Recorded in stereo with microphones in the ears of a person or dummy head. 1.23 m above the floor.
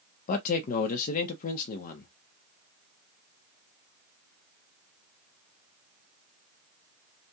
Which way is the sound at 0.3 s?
45° left (ahead or behind).